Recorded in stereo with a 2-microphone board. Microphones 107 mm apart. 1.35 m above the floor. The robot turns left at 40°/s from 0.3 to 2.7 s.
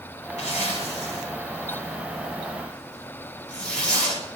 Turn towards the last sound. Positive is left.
turn(degrees=10)  # may be behind; listen again after turning